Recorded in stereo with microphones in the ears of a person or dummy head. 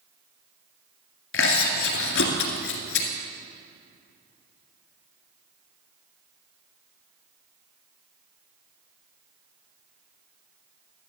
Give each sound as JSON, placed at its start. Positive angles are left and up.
{"t": 1.3, "sound": "chewing", "side_deg": 80, "distance_m": 2.0}